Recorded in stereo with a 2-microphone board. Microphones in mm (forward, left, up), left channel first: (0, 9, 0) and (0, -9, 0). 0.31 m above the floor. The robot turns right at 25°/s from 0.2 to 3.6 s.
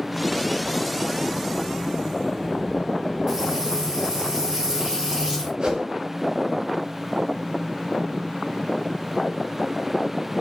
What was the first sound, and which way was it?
Frying, 30° right (ahead or behind).